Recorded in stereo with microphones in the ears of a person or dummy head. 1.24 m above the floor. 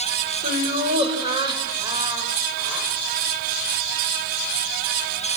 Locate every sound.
0.4 s laughter: 45° right (ahead or behind), 5.5 m; by 2.9 s 10° right (ahead or behind), 7 m